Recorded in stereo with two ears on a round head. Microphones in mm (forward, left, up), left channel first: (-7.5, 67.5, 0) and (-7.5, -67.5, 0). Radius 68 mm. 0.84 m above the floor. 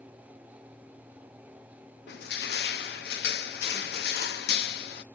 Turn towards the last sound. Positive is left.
turn(degrees=70)  # may be behind; listen again after turning